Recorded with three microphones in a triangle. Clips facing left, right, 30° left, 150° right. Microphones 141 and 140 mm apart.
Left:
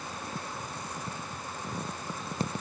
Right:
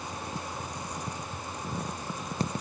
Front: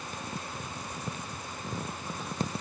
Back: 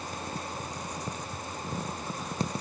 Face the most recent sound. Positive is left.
No sound to turn to.